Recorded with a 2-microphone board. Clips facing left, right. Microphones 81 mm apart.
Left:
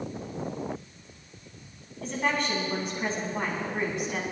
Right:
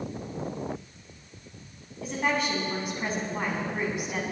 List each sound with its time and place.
2.0 s a woman speaking: 5° right (ahead or behind), 3.5 m